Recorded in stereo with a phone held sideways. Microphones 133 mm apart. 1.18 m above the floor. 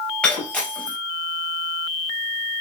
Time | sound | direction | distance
0.2 | breaking glass | 5° left (ahead or behind) | 4 m